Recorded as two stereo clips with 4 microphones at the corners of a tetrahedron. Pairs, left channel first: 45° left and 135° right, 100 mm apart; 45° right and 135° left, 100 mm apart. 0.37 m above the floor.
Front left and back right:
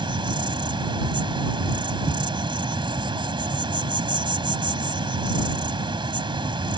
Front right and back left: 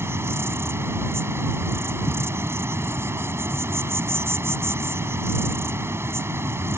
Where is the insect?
165° right.